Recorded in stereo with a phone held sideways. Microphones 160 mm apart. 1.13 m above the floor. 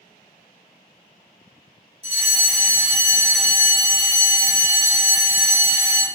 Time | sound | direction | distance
2.0 | a fire alarm | 40° right (ahead or behind) | 1.3 m